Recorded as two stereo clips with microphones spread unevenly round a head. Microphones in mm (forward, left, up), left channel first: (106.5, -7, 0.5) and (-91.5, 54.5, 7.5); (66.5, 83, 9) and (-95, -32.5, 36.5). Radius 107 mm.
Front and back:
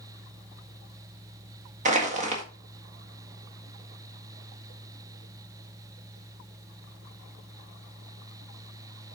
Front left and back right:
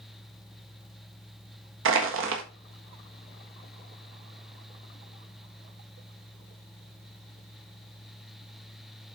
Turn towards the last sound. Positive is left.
turn(degrees=-140)